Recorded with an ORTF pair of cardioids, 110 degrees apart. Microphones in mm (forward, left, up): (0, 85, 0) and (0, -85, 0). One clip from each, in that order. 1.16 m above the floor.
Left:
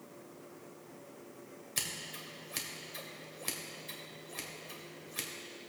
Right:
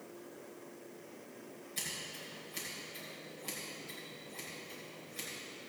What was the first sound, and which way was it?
Scissors, 55° left.